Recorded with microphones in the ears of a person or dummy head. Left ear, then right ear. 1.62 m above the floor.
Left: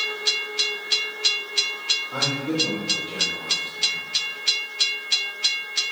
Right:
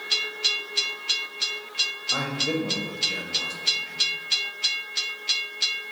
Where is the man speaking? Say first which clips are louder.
Left 1 dB; 70° right (ahead or behind), 0.7 m.